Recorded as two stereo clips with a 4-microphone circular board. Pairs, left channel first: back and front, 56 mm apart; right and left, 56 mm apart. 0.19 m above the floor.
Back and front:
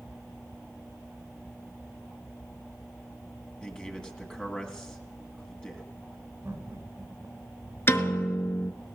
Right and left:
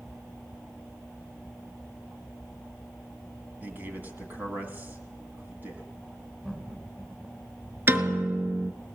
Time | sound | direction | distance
3.6 | a man speaking | 115° left | 2.0 m
6.4 | laughter | 15° left | 2.5 m
7.9 | a piano | 135° left | 0.9 m